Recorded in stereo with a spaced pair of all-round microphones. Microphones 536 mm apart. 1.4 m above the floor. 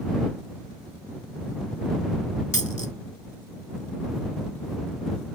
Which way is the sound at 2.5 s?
40° left (ahead or behind).